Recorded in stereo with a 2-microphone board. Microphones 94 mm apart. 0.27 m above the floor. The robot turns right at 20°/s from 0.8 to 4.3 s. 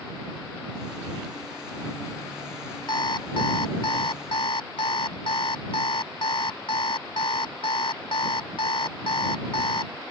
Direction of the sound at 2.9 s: 55° left (ahead or behind).